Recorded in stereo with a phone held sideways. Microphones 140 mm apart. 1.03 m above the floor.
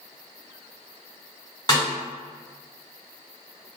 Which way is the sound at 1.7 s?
30° left (ahead or behind).